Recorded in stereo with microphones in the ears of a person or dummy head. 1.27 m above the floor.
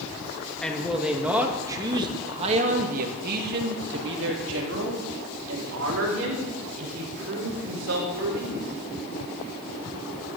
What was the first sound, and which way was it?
A man speaking, 5° left (ahead or behind).